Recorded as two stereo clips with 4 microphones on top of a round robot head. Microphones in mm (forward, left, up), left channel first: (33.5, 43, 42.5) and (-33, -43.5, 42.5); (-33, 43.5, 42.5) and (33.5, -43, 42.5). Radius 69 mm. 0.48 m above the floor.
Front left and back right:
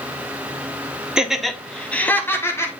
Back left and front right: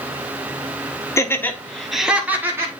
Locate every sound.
1.2 s laughter: 155° left, 1.5 m; by 2.7 s straight ahead, 1.8 m